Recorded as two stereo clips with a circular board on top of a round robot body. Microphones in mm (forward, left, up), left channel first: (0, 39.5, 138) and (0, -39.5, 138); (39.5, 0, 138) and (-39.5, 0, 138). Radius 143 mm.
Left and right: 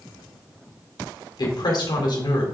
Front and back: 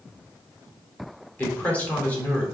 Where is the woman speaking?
70° left, 3 m.